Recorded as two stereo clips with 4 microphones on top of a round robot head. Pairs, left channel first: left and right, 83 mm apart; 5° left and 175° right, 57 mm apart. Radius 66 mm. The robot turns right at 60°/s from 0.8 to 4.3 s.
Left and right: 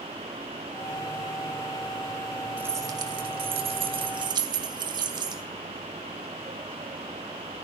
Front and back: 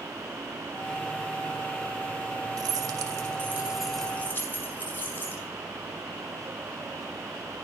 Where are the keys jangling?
165° right, 2.5 m; by 5.4 s 60° right, 2.5 m.